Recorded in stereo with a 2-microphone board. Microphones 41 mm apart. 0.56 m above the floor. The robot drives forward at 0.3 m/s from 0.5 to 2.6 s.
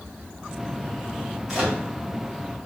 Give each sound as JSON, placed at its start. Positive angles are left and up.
{"t": 1.5, "sound": "a microwave", "side_deg": -5, "distance_m": 2.5}